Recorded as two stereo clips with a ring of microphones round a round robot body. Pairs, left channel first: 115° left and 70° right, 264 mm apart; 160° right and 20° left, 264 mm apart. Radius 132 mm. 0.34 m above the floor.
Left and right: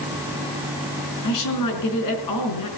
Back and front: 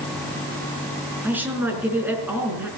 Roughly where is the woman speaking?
Left.